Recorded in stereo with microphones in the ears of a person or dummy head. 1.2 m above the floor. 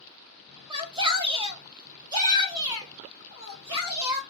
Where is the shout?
20° right (ahead or behind), 1.7 m; by 4.2 s 15° right (ahead or behind), 3.5 m.